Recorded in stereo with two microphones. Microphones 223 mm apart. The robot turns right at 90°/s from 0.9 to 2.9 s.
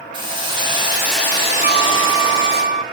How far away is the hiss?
About 2 m.